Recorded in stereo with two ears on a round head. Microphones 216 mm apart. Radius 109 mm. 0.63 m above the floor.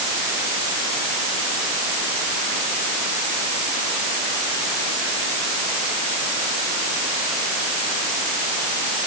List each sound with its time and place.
Only background noise.